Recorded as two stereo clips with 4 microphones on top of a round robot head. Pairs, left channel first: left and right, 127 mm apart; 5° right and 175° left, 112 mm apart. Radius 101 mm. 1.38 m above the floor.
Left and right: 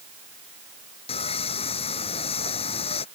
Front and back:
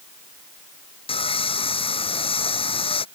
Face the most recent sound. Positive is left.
turn(degrees=35)